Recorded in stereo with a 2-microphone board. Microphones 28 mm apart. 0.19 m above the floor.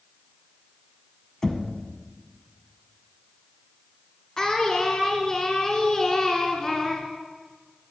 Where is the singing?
25° left (ahead or behind), 1.7 m.